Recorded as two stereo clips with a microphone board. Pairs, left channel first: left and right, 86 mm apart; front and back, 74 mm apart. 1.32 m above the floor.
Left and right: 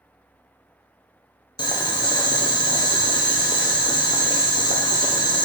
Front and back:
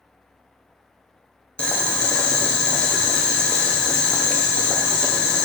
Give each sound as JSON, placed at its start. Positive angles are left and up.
{"t": 1.6, "sound": "boiling", "azimuth_deg": 75, "distance_m": 0.6}